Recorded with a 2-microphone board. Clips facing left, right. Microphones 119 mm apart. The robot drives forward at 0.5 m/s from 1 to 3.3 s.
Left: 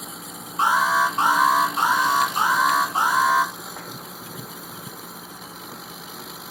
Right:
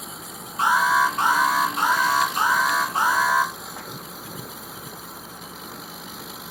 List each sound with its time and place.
0.6 s an alarm: 30° left (ahead or behind), 1.7 m; by 3.5 s 20° left (ahead or behind), 2.5 m